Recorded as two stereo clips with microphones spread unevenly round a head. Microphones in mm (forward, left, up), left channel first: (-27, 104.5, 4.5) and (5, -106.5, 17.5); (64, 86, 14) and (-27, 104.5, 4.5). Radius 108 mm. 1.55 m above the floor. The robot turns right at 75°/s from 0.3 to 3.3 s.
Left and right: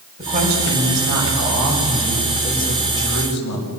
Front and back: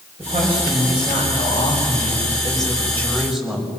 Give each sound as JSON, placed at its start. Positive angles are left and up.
{"t": 0.2, "sound": "a woman speaking", "azimuth_deg": -145, "distance_m": 6.5}